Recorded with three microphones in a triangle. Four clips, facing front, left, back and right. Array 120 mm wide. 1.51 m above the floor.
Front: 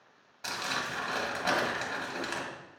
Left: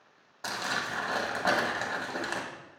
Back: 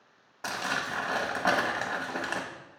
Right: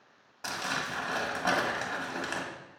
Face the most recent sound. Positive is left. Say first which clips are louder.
# left 1 dB, back 3 dB
turn(degrees=160)